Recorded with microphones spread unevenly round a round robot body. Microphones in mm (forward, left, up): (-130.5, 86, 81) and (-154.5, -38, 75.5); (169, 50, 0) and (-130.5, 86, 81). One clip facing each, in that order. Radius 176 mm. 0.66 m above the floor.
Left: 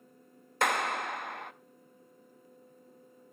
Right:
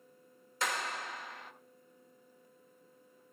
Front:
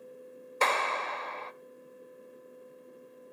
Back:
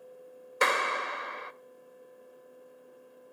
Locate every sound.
0.6 s a clap: 90° left, 0.8 m